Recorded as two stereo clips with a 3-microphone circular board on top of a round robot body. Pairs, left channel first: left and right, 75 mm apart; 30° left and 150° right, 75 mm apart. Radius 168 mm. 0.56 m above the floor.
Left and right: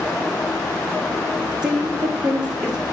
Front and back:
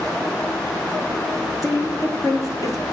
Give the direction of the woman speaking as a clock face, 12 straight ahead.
12 o'clock.